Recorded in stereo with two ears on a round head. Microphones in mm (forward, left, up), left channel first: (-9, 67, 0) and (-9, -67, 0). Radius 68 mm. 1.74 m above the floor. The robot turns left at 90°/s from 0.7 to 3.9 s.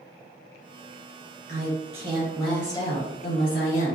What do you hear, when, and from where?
1.5 s a woman speaking: 95° right, 2.0 m; by 4.0 s 45° left, 2.0 m